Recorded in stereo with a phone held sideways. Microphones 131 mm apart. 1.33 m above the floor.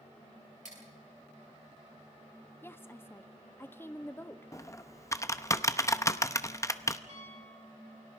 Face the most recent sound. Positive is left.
turn(degrees=-60)  # may be behind; listen again after turning